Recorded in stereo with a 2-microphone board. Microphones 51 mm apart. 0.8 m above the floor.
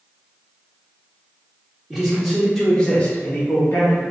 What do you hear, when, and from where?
1.9 s a man speaking: 10° right (ahead or behind), 1.1 m; by 4.0 s 45° left (ahead or behind), 0.8 m